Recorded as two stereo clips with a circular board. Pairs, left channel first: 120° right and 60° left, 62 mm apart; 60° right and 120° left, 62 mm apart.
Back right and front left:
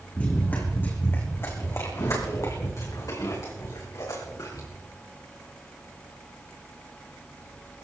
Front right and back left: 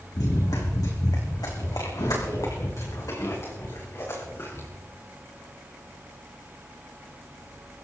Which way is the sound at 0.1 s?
55° right.